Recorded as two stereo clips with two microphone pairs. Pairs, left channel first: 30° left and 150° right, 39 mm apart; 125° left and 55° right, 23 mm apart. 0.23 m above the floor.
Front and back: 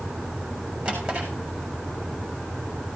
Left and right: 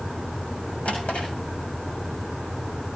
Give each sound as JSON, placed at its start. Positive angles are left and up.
{"t": 0.8, "sound": "a drawer", "azimuth_deg": 140, "distance_m": 6.5}